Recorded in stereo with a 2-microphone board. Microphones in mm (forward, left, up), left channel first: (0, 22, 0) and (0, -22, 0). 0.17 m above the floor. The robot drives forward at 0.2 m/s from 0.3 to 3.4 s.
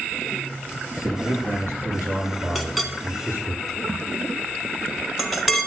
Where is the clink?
Centre (ahead or behind), 1.0 m.